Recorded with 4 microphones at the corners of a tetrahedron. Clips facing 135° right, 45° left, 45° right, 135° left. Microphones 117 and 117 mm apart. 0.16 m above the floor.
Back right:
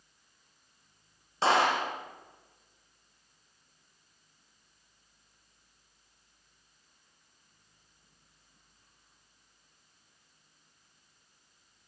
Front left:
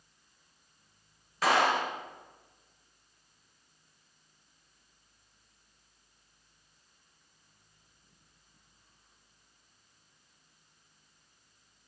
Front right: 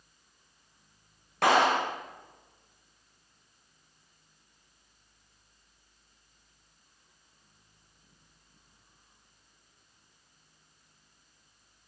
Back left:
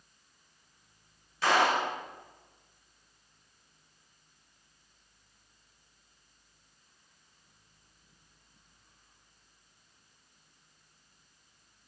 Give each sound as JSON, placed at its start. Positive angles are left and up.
{"t": 1.4, "sound": "a clap", "azimuth_deg": -75, "distance_m": 8.0}